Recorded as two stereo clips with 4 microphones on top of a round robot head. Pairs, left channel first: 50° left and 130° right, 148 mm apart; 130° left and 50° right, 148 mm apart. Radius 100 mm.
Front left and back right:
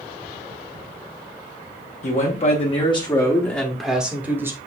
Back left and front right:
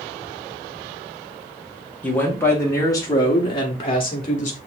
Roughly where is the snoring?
No snoring in this recording.